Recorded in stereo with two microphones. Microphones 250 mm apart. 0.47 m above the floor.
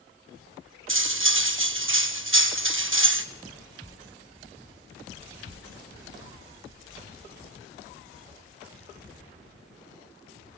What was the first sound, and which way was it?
Cutlery clinking, 55° right (ahead or behind).